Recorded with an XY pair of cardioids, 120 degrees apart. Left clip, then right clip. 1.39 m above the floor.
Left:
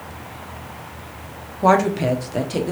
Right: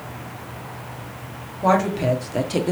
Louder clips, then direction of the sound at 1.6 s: Left 3 dB; 30° left.